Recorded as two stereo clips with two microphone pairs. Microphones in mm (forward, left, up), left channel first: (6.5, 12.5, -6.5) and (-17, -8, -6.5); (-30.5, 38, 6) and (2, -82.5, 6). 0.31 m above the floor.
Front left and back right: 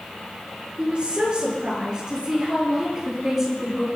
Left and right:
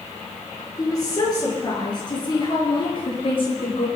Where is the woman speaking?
165° left, 6.5 m; by 3.9 s 145° left, 6 m.